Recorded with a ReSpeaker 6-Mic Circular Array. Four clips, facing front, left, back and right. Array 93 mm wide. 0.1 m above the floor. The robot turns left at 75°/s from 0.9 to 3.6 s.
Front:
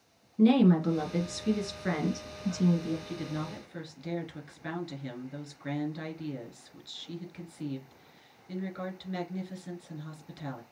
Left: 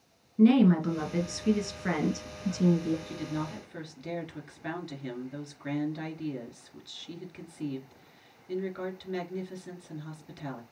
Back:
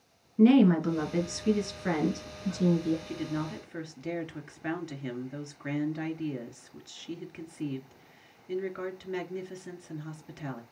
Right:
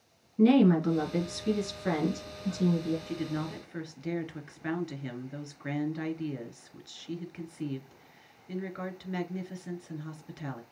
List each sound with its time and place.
0.4 s a woman speaking: 170° left, 1.6 m; by 3.0 s 15° left, 1.6 m
3.1 s a woman speaking: 110° right, 1.6 m; by 10.6 s 150° right, 1.6 m